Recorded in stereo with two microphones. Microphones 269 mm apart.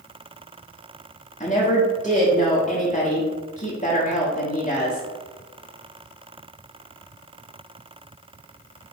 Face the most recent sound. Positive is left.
turn(degrees=25)  # may be behind; listen again after turning